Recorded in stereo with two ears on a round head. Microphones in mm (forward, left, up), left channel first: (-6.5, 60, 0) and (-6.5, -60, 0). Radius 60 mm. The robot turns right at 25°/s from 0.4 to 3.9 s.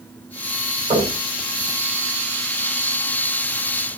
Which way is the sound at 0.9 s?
40° right (ahead or behind).